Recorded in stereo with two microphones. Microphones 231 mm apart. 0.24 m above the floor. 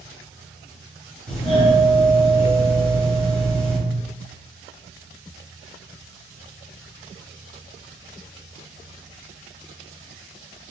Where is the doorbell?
5° left (ahead or behind), 1.6 m.